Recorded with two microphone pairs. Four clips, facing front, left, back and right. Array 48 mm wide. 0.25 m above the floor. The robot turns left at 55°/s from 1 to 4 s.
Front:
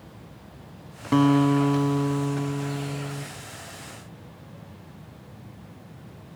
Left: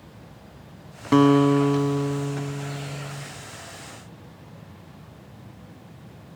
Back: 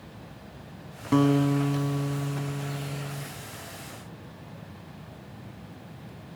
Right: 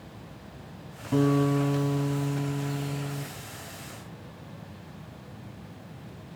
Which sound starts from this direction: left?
A guitar, at 1.1 s.